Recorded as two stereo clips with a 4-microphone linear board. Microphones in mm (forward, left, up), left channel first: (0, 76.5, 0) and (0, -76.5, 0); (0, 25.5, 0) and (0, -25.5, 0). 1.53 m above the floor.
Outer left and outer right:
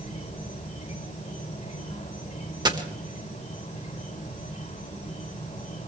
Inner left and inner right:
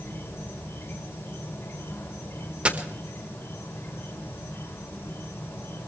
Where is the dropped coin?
25° right (ahead or behind), 1.3 m.